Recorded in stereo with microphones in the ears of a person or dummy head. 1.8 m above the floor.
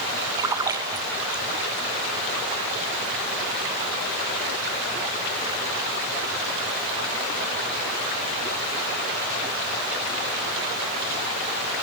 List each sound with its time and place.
0.4 s a splash: 20° right (ahead or behind), 0.7 m